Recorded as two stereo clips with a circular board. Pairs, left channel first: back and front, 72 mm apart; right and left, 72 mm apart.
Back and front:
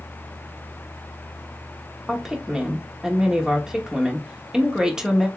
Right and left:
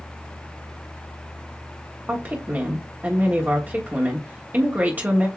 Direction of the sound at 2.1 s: 65° left.